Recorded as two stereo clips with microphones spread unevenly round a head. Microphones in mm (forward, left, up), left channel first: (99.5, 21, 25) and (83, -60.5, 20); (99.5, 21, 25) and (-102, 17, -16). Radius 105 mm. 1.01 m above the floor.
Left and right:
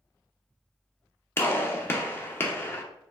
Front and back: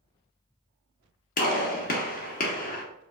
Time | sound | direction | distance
1.4 | a gunshot | 25° left | 0.8 m